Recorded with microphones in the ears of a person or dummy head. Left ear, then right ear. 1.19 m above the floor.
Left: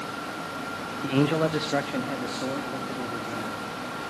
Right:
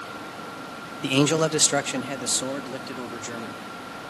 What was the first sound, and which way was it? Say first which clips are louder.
A man speaking: right 3 dB; 75° right (ahead or behind).